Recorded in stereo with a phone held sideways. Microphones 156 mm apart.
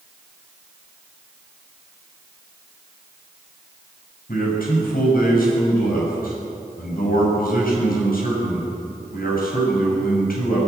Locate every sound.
4.3 s a man speaking: 75° left (ahead or behind), 6 m